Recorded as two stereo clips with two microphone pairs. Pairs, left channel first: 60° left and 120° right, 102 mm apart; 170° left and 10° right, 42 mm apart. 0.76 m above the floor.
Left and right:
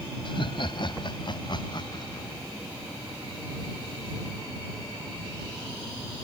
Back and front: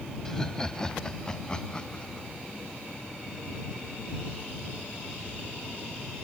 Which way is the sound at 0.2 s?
95° left.